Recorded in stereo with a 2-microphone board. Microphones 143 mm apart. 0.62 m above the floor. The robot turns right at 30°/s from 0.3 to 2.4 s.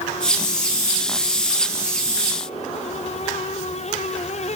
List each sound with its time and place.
Only background noise.